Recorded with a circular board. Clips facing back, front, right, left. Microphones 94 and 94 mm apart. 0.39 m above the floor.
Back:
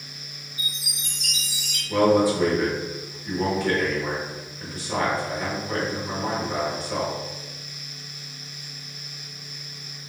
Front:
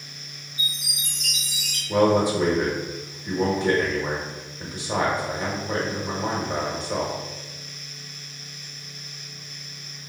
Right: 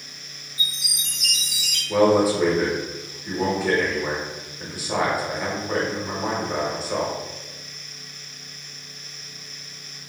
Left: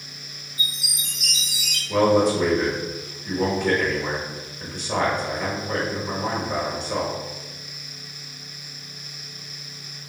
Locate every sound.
0.6 s a chime: 145° right, 1.5 m
1.9 s a man speaking: 15° right, 0.8 m